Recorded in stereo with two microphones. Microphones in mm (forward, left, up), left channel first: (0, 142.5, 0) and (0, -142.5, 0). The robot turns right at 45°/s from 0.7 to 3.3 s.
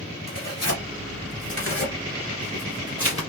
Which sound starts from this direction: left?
Tearing paper, at 0.3 s.